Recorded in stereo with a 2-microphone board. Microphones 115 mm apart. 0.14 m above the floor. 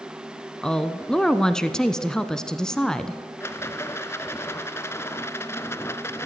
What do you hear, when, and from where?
0.6 s a woman speaking: 5° left (ahead or behind), 1.1 m
3.4 s a rattle: 25° left (ahead or behind), 0.9 m